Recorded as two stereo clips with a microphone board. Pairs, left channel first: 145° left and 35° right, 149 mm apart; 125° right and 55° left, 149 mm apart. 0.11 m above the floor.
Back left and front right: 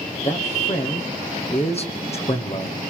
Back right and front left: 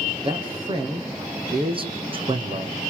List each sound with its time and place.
0.2 s a man speaking: 105° left, 3.5 m